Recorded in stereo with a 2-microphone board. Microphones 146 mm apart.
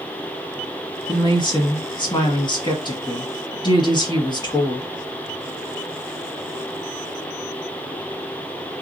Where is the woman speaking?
30° left (ahead or behind), 1.1 m.